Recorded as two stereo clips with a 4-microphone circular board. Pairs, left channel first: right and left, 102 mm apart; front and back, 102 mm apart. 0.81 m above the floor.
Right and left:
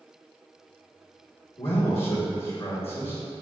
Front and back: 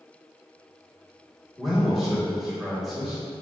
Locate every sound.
1.6 s a man speaking: 90° right, 1.5 m